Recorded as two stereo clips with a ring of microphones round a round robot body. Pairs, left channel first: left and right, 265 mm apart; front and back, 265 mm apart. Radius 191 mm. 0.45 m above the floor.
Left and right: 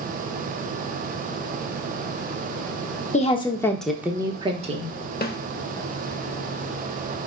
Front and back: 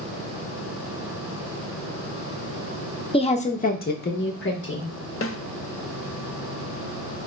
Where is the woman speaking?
55° left, 0.8 m; by 4.9 s 35° right, 1.2 m.